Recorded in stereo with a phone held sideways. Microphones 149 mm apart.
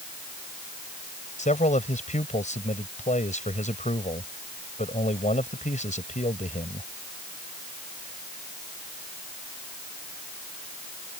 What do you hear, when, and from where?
1.4 s a man speaking: 60° left (ahead or behind)